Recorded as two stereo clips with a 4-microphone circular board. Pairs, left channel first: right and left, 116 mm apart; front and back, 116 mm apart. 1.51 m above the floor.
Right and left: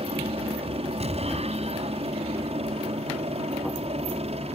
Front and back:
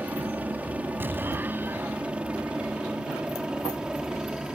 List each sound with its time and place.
0.0 s a helicopter: 105° left; by 4.5 s 95° left
1.0 s an explosion: 110° left